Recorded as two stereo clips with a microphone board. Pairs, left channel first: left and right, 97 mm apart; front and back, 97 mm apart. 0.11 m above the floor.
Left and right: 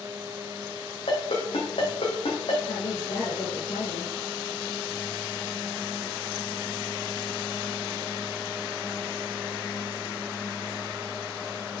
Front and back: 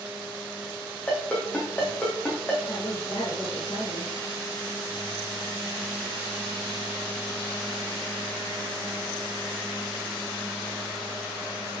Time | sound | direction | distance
1.1 | a ringtone | 70° left | 3 m
2.7 | a woman speaking | 70° left | 4 m